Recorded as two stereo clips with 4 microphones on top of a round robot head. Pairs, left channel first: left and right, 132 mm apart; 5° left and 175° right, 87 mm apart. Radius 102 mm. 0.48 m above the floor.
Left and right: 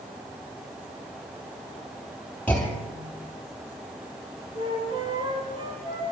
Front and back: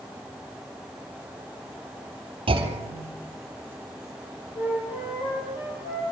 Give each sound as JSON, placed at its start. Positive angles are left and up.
{"t": 2.5, "sound": "a clunk", "azimuth_deg": 170, "distance_m": 3.0}
{"t": 4.5, "sound": "a flute", "azimuth_deg": -35, "distance_m": 8.5}